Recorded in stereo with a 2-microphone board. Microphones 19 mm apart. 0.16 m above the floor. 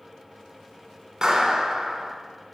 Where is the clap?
30° right (ahead or behind), 1.1 m.